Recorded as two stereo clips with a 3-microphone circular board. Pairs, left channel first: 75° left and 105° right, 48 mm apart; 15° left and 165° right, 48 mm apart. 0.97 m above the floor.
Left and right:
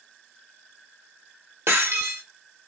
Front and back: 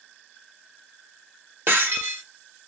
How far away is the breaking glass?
About 1.3 m.